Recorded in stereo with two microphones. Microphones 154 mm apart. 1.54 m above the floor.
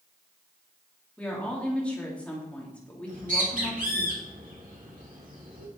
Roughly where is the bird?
Right.